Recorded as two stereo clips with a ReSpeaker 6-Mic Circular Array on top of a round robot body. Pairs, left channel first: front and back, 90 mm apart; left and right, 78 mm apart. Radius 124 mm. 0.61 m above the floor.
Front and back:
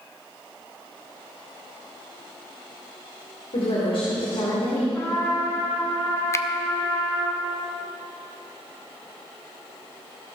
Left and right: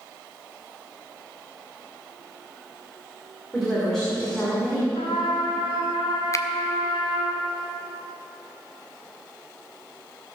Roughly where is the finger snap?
Ahead left.